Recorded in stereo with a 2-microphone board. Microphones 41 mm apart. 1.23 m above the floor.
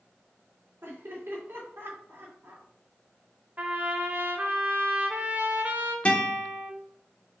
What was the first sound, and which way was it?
Laughter, 55° right (ahead or behind).